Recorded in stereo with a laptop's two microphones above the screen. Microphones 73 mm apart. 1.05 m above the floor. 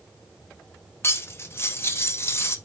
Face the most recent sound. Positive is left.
turn(degrees=35)  # may be behind; listen again after turning